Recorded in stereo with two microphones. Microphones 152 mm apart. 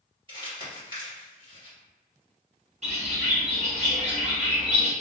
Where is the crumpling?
35° right (ahead or behind), 1.6 m.